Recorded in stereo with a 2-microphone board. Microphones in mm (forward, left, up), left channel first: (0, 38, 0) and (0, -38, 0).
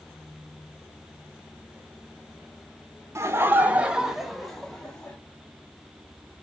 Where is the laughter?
40° right (ahead or behind), 0.6 m; by 5.2 s 10° left (ahead or behind), 1.2 m.